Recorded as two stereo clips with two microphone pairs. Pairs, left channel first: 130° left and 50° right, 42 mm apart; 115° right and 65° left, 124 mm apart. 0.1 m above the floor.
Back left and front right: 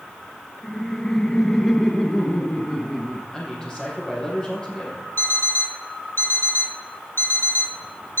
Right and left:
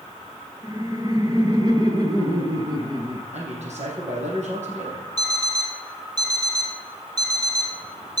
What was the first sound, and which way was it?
Laughter, 65° left.